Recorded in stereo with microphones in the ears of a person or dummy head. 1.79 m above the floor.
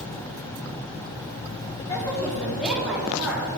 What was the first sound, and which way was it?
A woman speaking, 25° left (ahead or behind).